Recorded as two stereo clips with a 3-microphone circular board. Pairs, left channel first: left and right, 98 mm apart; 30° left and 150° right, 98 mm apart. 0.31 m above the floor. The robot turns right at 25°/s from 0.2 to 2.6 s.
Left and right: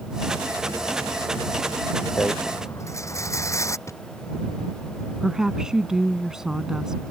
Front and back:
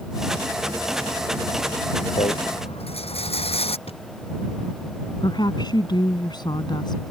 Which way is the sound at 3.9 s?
30° left.